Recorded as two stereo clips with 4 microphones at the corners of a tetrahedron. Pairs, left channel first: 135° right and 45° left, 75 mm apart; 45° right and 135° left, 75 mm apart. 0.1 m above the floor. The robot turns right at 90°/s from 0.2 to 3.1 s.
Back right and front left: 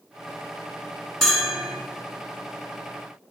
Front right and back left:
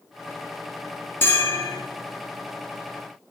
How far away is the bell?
About 1.9 m.